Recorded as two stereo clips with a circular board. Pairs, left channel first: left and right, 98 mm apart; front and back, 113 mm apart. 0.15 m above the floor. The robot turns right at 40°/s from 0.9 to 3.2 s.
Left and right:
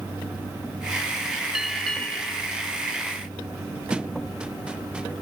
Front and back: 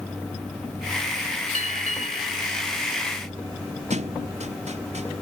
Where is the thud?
170° right.